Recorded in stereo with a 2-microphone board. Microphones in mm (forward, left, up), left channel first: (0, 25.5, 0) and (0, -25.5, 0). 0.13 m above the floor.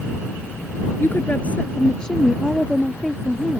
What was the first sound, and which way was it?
A woman speaking, 40° left (ahead or behind).